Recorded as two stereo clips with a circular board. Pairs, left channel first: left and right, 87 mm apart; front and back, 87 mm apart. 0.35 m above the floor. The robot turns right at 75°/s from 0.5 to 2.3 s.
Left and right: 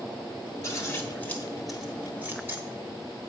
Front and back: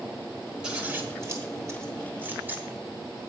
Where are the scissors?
105° left, 1.4 m; by 2.6 s 130° right, 1.4 m.